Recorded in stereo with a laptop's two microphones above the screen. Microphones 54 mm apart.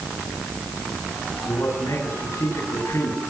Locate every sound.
1.4 s a man speaking: 60° left (ahead or behind), 9.5 m